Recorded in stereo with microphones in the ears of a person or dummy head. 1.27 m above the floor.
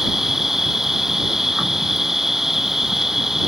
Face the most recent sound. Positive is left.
turn(degrees=0)  # may be behind; listen again after turning